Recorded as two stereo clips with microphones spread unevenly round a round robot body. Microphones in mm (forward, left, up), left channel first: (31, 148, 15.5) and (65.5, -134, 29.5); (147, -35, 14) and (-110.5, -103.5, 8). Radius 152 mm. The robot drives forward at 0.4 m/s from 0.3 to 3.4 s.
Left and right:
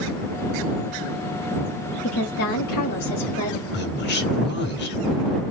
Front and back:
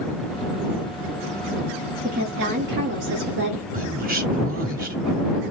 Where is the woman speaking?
145° left, 2 m; by 3.6 s 150° left, 2.5 m.